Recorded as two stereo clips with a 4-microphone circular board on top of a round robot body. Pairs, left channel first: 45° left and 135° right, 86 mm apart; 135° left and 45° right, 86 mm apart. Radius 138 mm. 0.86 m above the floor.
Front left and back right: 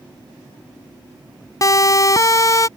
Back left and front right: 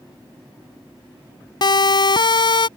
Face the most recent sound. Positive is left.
turn(degrees=100)